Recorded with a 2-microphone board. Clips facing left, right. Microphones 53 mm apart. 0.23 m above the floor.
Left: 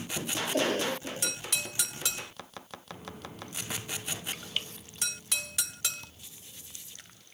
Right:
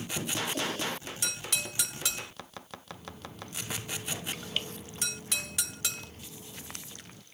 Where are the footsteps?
25° left (ahead or behind); by 7.2 s 65° right (ahead or behind).